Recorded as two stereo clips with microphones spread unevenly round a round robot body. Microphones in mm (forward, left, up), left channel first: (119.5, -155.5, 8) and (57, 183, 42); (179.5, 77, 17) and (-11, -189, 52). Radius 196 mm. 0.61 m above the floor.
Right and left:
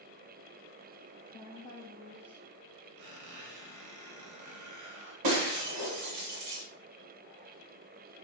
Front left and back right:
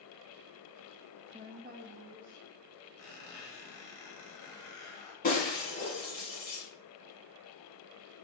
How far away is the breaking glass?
About 1.3 m.